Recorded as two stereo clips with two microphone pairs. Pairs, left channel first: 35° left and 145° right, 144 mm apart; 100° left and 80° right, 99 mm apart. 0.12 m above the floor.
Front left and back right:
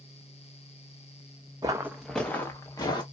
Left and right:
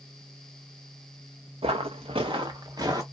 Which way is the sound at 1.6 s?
85° right.